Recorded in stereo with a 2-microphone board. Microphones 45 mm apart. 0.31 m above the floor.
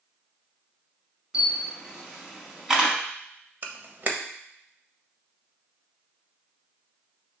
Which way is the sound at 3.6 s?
40° right (ahead or behind).